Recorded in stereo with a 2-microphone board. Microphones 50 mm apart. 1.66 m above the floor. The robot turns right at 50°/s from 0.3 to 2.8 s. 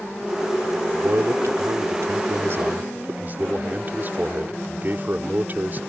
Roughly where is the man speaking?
Behind right.